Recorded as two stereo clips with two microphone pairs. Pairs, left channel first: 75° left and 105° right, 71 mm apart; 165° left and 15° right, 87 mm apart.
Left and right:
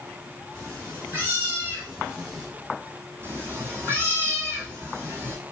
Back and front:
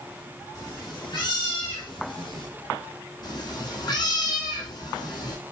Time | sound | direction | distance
0.6 | a cat meowing | 150° right | 2.0 m
3.2 | a cat meowing | 160° right | 1.4 m